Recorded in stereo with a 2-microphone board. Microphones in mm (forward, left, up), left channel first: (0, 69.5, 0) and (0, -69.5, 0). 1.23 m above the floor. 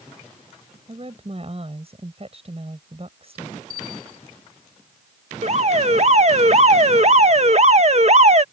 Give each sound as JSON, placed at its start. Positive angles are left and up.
{"t": 0.9, "sound": "a woman speaking", "side_deg": -45}
{"t": 3.7, "sound": "a bell", "side_deg": -65}
{"t": 5.4, "sound": "an alarm", "side_deg": -50}